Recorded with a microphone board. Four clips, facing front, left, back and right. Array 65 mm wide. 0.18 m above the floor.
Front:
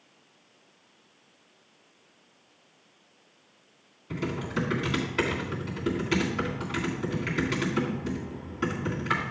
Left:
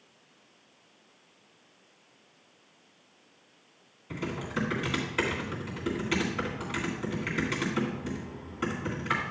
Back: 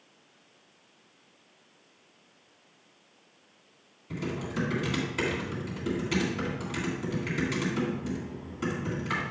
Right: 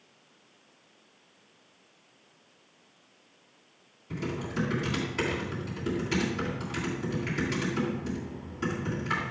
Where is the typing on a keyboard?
50° left, 2 m.